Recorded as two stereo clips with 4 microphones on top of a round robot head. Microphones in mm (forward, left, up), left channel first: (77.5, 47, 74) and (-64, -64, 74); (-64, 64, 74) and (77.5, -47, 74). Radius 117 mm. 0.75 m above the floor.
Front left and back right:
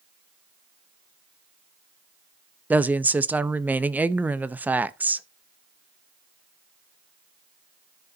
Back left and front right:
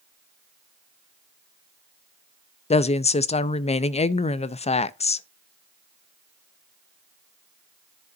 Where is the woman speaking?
145° left, 0.6 m.